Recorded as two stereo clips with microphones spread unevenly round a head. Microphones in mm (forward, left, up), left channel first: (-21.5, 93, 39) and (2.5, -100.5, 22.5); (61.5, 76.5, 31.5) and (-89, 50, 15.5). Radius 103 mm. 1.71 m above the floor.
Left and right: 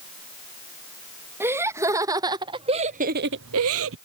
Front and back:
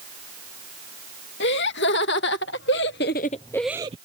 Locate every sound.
1.4 s laughter: 5° right; by 4.0 s 110° right